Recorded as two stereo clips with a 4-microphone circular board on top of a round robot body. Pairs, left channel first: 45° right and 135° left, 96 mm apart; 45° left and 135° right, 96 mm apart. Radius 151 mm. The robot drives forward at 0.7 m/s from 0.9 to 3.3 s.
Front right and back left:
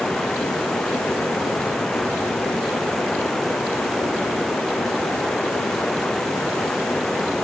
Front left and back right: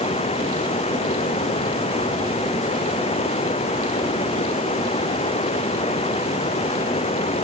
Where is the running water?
40° left; by 7.4 s 45° left.